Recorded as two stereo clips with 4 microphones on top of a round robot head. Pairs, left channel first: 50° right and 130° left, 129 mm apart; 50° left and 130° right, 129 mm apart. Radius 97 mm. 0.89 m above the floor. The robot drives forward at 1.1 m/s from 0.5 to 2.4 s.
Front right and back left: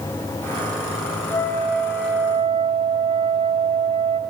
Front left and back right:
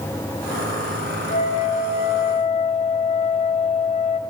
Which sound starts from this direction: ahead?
A flute, at 1.3 s.